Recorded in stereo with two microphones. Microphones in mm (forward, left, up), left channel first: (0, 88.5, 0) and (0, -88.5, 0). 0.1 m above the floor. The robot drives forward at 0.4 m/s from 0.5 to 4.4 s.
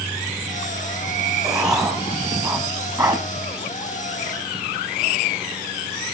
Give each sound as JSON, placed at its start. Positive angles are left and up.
{"t": 1.4, "sound": "writing", "side_deg": -15, "distance_m": 3.0}